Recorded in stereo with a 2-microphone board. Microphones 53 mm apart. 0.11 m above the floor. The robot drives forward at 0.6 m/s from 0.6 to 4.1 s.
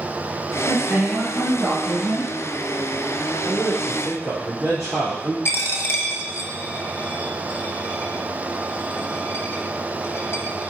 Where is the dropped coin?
50° left (ahead or behind), 0.7 m.